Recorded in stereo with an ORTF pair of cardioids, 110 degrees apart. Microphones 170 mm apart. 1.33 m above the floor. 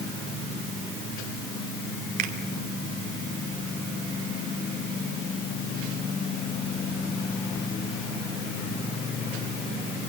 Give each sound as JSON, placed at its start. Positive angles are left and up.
{"t": 2.2, "sound": "a finger snap", "azimuth_deg": -70, "distance_m": 2.5}